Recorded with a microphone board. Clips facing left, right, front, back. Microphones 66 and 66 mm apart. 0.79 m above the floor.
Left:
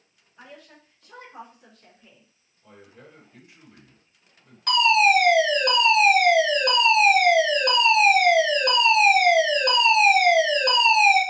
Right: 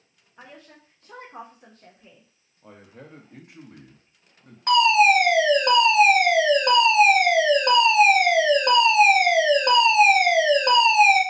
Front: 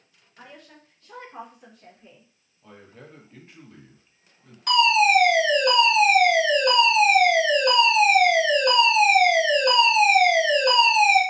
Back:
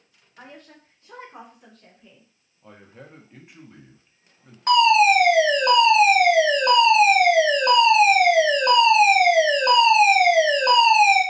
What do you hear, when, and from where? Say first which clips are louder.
0.4 s a woman speaking: even, back 2 dB; 140° right, 1.6 m; by 2.3 s 35° right, 1.3 m
2.6 s a man speaking: right 3 dB, back 1 dB; 105° right, 1.3 m
4.7 s a fire alarm: right 2 dB, back 3 dB; 145° right, 2 m